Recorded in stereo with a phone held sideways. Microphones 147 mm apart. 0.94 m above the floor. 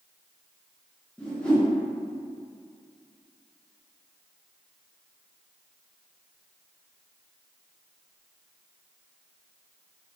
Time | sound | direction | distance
1.2 | a whoosh | 5° left (ahead or behind) | 0.9 m